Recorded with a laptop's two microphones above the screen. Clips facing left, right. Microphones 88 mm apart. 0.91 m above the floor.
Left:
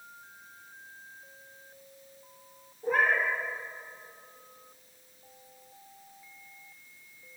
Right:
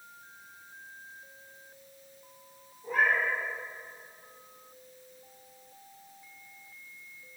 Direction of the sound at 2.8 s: 75° left (ahead or behind).